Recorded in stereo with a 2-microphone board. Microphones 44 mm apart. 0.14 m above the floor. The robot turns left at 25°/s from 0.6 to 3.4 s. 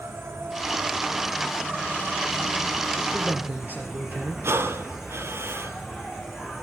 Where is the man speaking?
40° right (ahead or behind), 3.5 m; by 4.5 s 45° right (ahead or behind), 3.5 m.